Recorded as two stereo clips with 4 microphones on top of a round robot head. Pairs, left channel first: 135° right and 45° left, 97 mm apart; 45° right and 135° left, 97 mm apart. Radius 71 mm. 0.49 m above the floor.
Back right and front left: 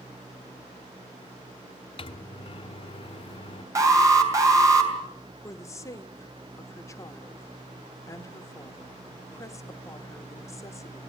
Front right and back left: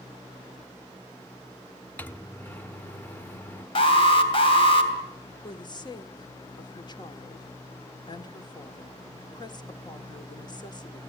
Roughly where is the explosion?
No explosion in this recording.